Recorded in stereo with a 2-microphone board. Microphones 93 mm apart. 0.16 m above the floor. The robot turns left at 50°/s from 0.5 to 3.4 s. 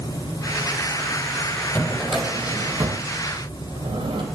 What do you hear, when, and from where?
1.8 s a drawer: 15° left, 2.5 m; by 4.2 s 70° right, 2.5 m